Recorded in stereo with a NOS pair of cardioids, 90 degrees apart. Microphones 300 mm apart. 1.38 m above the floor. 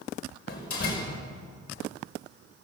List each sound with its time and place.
0.5 s a door slam: 50° left, 5 m